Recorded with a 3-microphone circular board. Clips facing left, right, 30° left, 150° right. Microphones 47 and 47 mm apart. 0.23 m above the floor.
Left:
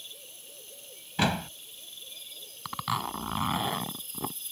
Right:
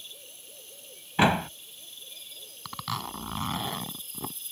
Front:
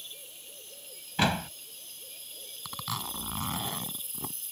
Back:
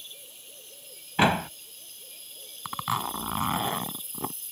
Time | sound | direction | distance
1.2 | a door slam | 115° right | ?
2.6 | a zipper | 160° left | ?